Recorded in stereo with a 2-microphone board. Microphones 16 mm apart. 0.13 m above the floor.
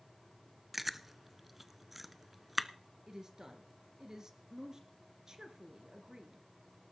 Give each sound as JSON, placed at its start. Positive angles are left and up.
{"t": 0.7, "sound": "chewing", "side_deg": -10, "distance_m": 0.7}
{"t": 3.1, "sound": "a woman speaking", "side_deg": -40, "distance_m": 2.5}